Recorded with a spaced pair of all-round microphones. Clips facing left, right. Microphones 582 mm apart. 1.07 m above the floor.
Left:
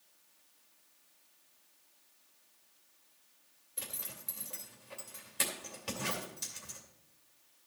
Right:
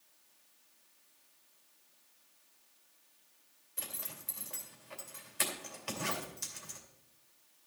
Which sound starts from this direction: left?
A zipper, at 3.8 s.